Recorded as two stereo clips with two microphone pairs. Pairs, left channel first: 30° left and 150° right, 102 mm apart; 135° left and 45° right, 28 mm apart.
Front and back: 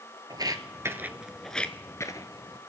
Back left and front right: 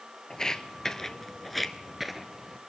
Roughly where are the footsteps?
Behind.